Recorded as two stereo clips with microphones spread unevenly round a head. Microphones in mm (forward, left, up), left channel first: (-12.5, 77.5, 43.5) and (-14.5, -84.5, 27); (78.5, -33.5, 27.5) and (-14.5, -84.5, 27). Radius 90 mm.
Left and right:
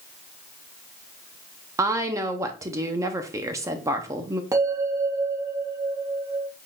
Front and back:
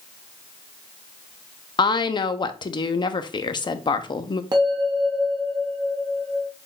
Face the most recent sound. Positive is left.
turn(degrees=-160)